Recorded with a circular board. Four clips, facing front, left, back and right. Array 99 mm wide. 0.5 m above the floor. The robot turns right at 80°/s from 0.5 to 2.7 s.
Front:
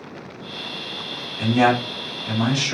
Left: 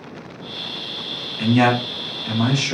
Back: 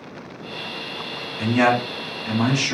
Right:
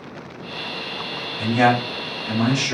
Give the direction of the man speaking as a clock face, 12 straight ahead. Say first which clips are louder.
Left 1 dB, front 1 dB; 9 o'clock.